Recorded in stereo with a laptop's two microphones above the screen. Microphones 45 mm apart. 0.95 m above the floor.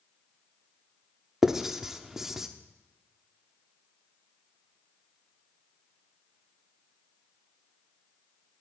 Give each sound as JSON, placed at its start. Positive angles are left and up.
{"t": 1.4, "sound": "writing", "side_deg": -10, "distance_m": 0.8}